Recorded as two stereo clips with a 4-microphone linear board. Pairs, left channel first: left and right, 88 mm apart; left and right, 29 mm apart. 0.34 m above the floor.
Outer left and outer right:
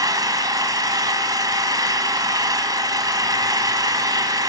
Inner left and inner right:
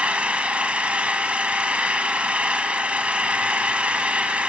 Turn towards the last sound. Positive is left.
turn(degrees=-45)  # may be behind; listen again after turning